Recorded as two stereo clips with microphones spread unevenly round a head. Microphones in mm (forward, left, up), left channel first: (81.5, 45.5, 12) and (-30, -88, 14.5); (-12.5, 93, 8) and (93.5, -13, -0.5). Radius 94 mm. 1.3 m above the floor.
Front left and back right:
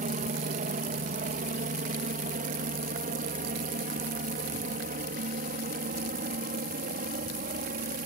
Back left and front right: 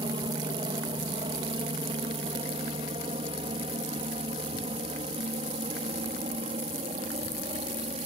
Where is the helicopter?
100° right.